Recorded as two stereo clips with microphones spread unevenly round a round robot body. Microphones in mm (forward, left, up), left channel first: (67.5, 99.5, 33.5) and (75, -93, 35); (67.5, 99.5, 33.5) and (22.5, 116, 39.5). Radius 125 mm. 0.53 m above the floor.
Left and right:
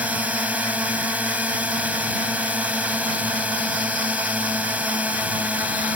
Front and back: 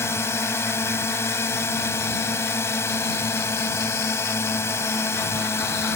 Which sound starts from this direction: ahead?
A drone, at 0.0 s.